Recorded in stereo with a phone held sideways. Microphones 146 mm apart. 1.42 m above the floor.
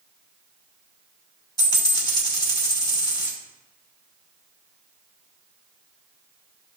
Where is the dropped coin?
30° left (ahead or behind), 2 m.